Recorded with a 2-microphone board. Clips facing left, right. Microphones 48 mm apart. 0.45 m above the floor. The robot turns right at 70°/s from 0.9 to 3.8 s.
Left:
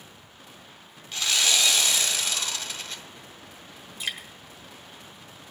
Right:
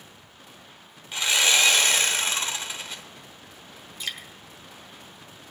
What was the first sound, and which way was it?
Sawing, 150° right.